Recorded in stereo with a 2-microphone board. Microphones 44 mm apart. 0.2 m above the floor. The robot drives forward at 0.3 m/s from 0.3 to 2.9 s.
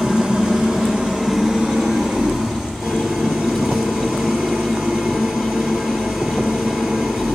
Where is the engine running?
20° right (ahead or behind), 1.6 m; by 7.4 s 10° right (ahead or behind), 2.5 m.